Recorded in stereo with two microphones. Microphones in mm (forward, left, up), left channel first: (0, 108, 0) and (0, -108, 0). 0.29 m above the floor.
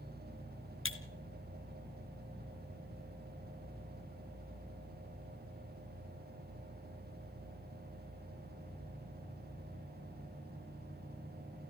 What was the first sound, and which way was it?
Breaking glass, 70° left (ahead or behind).